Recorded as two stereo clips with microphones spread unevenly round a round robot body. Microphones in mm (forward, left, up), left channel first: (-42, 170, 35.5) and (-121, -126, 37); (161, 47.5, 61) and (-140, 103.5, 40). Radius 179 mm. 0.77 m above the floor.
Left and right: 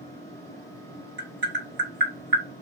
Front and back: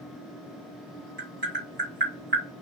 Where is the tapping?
150° right, 1.5 m.